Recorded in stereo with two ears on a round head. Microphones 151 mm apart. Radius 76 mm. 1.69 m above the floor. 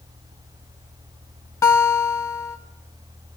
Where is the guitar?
15° left (ahead or behind), 1.0 m.